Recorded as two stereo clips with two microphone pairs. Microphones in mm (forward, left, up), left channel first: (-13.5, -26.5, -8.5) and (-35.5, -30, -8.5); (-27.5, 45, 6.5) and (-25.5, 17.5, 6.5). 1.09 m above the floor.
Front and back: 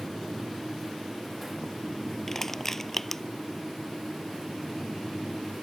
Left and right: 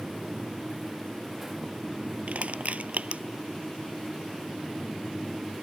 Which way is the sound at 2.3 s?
65° right.